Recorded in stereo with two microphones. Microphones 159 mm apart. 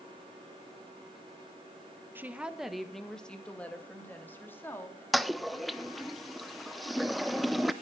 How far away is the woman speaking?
About 1.0 m.